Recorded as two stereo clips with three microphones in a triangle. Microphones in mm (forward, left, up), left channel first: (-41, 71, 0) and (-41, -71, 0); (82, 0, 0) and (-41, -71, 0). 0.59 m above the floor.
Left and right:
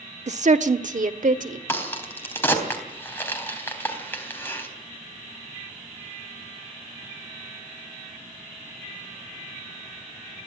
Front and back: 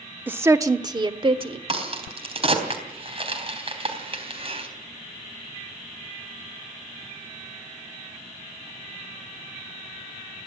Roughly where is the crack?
Behind.